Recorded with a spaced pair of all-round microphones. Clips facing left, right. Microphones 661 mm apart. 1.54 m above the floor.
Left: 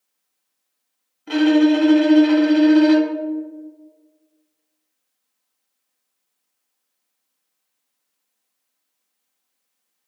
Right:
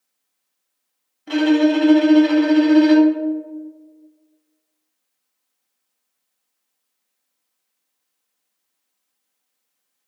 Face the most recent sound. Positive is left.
turn(degrees=-5)  # may be behind; listen again after turning